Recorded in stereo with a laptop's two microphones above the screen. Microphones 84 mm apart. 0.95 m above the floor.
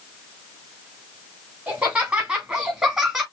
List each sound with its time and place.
1.7 s laughter: 20° right (ahead or behind), 2.5 m; by 3.2 s 5° right (ahead or behind), 2 m